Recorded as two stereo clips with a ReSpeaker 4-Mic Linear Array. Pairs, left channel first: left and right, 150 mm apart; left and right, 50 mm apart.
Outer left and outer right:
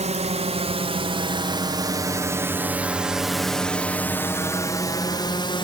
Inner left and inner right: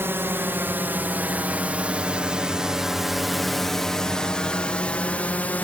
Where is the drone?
50° right (ahead or behind); by 5.6 s 35° left (ahead or behind).